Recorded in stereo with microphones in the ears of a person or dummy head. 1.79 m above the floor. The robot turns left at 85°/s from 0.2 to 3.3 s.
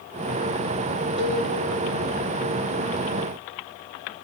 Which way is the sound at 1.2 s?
35° right (ahead or behind).